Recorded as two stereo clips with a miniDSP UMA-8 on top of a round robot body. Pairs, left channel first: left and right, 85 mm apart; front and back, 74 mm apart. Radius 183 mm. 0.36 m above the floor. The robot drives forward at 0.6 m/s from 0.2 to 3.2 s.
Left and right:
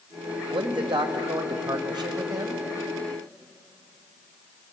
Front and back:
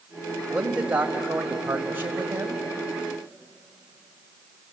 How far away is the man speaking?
About 3 m.